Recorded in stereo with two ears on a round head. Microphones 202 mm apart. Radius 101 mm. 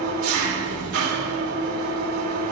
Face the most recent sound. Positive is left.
turn(degrees=-65)  # may be behind; listen again after turning